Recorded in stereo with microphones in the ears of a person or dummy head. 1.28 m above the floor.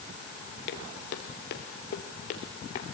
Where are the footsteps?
55° left (ahead or behind), 2 m; by 2.8 s 35° left (ahead or behind), 2.0 m.